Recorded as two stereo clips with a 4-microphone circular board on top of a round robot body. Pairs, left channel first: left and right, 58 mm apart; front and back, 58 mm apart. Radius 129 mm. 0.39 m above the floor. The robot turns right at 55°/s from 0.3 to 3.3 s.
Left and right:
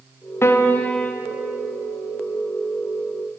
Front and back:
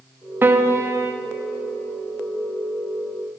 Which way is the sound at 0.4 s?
130° left.